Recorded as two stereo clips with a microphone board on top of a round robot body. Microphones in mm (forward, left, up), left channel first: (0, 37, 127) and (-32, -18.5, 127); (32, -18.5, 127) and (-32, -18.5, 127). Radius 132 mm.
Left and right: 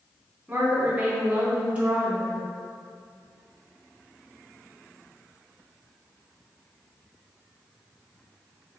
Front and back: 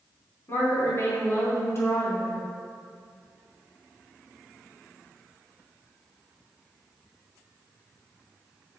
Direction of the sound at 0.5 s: 45° right.